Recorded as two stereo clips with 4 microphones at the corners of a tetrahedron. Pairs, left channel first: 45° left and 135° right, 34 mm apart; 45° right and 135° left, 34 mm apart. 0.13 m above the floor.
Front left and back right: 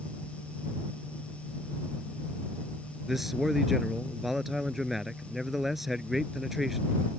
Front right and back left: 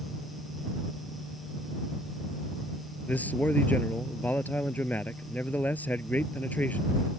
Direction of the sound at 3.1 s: 55° right.